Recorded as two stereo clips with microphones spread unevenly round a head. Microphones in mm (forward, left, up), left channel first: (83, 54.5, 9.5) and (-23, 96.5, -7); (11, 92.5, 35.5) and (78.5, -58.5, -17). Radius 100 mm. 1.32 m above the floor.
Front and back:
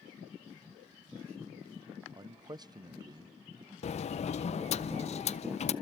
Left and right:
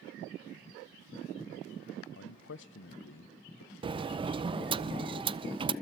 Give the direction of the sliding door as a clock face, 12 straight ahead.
12 o'clock.